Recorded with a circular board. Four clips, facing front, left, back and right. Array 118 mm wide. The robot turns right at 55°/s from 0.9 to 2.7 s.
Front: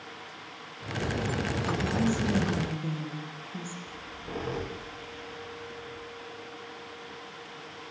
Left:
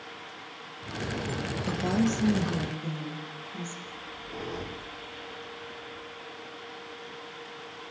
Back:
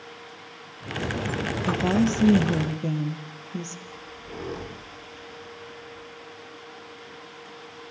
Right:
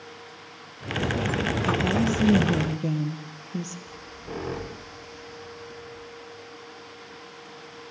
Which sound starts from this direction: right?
A squeak, at 3.9 s.